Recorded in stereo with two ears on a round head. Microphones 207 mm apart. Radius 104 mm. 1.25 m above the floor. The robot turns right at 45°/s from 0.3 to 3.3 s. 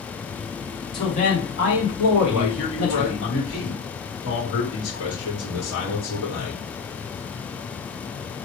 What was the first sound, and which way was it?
A man speaking, 20° left.